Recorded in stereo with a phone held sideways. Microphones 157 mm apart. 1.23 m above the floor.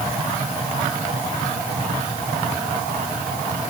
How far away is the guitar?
I don't hear a guitar.